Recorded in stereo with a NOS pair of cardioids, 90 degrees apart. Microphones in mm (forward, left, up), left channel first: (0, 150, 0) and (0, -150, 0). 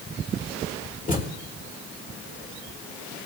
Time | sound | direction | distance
1.1 | a thud | 25° left | 2.5 m